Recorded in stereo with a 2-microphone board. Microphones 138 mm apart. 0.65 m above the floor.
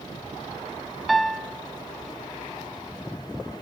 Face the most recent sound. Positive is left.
turn(degrees=0)  # may be behind; listen again after turning